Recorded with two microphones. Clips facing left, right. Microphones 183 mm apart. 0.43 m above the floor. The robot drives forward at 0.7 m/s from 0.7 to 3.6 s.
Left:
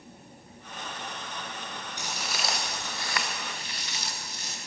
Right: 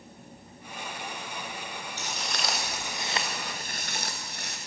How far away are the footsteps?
About 3 m.